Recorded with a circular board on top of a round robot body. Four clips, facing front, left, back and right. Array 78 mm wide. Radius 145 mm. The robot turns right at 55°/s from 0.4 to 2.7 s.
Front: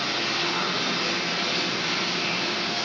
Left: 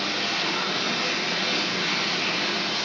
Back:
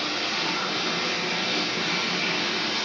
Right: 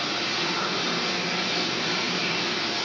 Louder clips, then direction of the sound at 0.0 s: Left 1 dB, front 1 dB; 15° left.